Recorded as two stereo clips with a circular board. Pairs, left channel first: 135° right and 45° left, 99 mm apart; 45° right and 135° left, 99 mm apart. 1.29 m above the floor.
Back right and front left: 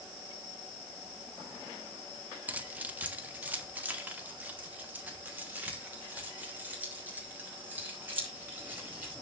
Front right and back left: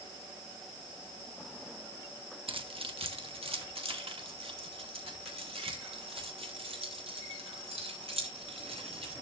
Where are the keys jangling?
120° left, 1.0 m.